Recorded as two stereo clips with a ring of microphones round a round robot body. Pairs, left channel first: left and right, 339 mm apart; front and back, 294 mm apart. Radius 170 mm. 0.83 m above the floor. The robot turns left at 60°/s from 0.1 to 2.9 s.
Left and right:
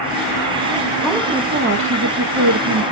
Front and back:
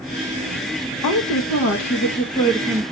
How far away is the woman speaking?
About 0.6 m.